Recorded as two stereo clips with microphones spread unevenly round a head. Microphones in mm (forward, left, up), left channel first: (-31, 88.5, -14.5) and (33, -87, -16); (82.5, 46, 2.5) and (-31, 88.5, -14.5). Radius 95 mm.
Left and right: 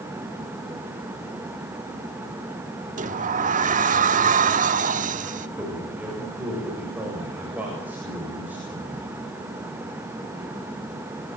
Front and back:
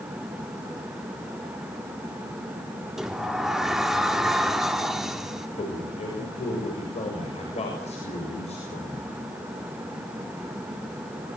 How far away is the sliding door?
About 1.2 m.